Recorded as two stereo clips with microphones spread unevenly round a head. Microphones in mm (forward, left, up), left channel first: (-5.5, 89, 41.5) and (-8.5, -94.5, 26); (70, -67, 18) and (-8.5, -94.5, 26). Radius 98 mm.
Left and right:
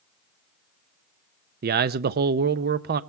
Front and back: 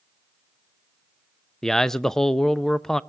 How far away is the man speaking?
About 0.5 m.